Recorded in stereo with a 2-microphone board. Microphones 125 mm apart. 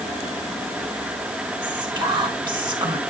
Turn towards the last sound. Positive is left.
turn(degrees=-35)  # may be behind; listen again after turning